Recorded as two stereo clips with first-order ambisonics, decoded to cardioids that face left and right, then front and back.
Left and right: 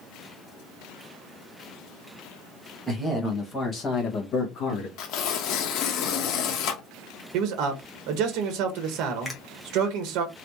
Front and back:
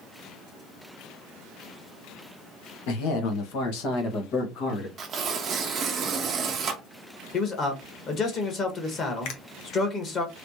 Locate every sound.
2.9 s a man speaking: straight ahead, 1.3 m; by 4.9 s 45° left, 1.8 m
5.0 s tearing paper: 120° left, 0.8 m
7.3 s a man speaking: 60° right, 1.2 m
9.2 s a finger snap: 5° left, 1.1 m